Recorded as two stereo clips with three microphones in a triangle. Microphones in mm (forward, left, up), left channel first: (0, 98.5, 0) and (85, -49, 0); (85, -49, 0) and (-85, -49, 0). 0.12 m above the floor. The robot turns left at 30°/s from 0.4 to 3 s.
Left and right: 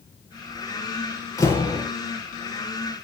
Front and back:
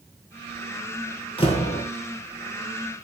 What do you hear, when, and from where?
1.4 s a door slam: 50° left, 2.0 m; by 1.9 s 40° left, 2.0 m